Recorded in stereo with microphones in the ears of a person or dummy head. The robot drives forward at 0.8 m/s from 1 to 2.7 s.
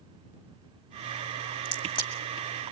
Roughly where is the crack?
Left.